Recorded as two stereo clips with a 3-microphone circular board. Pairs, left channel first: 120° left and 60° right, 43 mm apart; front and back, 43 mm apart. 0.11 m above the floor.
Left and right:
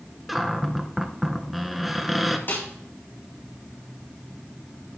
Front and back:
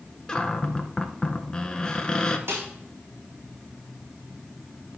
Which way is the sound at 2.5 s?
160° left.